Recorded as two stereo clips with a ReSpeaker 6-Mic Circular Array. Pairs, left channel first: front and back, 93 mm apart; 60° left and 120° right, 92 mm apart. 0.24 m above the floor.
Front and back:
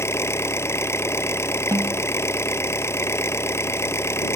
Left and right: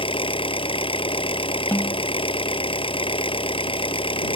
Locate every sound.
0.0 s an engine running: 60° left
1.7 s a snare drum: 125° left